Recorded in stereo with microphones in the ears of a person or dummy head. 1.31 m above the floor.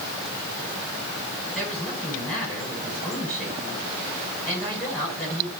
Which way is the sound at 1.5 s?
5° left (ahead or behind).